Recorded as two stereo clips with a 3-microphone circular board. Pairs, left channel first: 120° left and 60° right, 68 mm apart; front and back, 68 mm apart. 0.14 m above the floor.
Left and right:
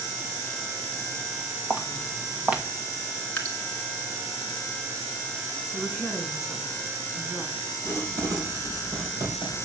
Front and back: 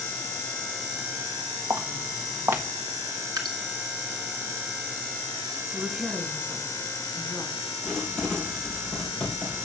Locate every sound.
1.7 s footsteps: 130° right, 1.7 m
3.4 s dripping: 170° right, 1.2 m
5.7 s a woman speaking: 140° right, 1.6 m
7.8 s writing: 80° right, 4 m